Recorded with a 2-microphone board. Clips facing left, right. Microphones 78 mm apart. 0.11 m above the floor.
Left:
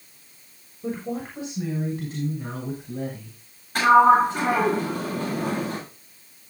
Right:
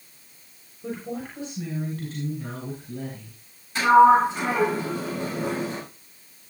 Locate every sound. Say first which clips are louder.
0.8 s a woman speaking: left 3 dB; 25° left (ahead or behind), 6.5 m; by 3.4 s 15° left (ahead or behind), 8 m
3.8 s a sliding door: even; 55° left (ahead or behind), 9 m